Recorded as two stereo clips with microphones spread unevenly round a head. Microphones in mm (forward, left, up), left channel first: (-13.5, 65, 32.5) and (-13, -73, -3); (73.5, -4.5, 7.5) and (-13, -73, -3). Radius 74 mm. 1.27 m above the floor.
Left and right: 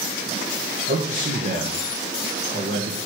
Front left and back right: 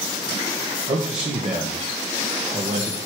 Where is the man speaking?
105° right, 1.3 m.